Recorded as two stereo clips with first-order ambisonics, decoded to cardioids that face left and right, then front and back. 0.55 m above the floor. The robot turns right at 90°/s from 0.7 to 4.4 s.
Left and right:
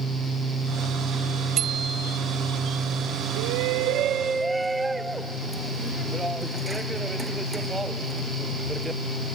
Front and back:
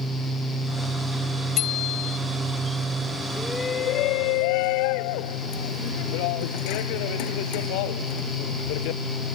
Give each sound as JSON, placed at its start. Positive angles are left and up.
{"t": 1.6, "sound": "a bicycle bell", "azimuth_deg": -40}
{"t": 3.4, "sound": "a shout", "azimuth_deg": -100}